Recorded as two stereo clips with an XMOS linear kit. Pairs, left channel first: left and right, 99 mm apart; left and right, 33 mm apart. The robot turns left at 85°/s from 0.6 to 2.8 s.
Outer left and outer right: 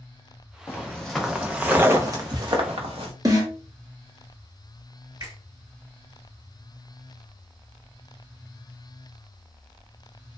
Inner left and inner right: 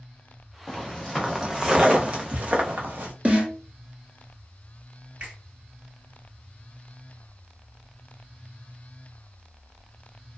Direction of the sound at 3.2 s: 35° right (ahead or behind).